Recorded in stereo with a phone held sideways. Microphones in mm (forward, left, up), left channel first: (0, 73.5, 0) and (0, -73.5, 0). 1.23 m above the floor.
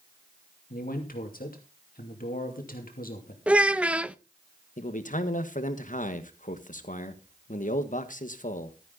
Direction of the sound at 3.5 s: 10° right (ahead or behind).